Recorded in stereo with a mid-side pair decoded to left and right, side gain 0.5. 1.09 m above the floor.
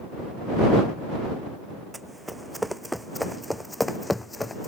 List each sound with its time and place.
1.9 s running footsteps: 10° right; by 4.7 s 15° left